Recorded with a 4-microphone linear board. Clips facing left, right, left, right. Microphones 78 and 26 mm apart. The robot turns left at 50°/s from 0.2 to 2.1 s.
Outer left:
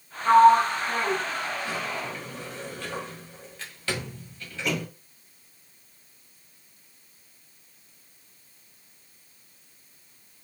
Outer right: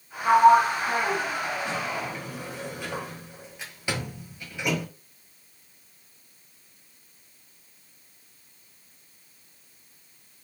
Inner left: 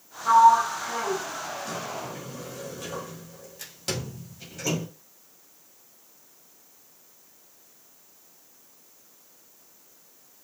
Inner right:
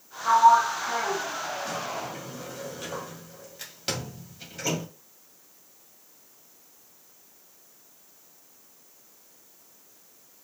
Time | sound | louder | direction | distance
0.2 | a sliding door | outer left 1 dB, inner left 1 dB | 20° right (ahead or behind) | 1.6 m